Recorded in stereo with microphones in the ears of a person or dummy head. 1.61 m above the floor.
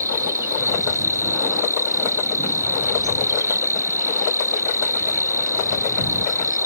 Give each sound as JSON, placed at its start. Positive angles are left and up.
{"t": 0.0, "sound": "an insect", "side_deg": -10}